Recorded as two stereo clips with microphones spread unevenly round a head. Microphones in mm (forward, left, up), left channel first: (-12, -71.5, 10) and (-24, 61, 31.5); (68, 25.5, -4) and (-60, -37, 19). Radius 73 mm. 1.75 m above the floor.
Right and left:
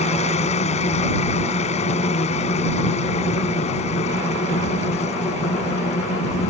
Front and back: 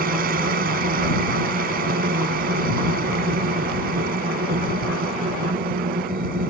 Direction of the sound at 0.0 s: 125° right.